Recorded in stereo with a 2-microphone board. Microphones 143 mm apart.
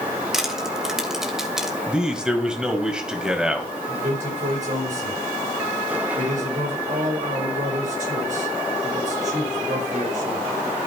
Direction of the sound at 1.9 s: 5° right (ahead or behind).